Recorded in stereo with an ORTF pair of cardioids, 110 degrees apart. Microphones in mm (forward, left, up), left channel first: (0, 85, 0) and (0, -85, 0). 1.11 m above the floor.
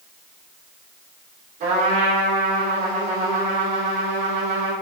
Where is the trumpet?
50° right, 3 m.